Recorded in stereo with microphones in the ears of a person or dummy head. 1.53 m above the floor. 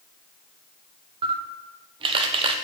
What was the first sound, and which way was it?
A camera shutter, 35° right (ahead or behind).